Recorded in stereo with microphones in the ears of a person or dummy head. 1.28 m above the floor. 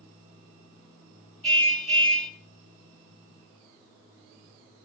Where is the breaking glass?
No breaking glass in this recording.